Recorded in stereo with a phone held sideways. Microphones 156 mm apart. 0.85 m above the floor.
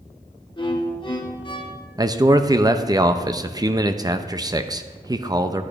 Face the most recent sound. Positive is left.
turn(degrees=-25)  # may be behind; listen again after turning